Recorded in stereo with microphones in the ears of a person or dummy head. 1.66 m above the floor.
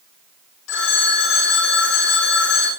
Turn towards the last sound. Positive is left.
turn(degrees=85)